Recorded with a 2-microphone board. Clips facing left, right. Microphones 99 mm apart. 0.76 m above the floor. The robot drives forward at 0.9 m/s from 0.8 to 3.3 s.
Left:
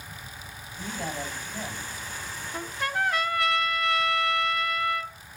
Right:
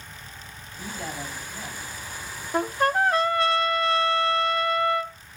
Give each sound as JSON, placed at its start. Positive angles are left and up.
{"t": 0.8, "sound": "a man speaking", "side_deg": 25, "distance_m": 6.5}
{"t": 2.5, "sound": "a trumpet", "side_deg": -70, "distance_m": 0.5}